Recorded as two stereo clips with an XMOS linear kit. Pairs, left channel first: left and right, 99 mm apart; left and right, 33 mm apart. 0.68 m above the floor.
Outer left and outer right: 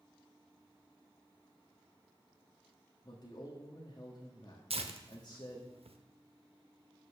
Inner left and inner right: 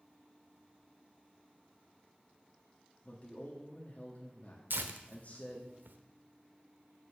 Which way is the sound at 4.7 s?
80° right.